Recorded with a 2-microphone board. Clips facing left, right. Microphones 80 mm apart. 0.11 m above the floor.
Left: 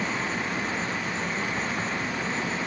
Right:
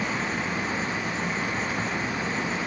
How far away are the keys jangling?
No keys jangling in this recording.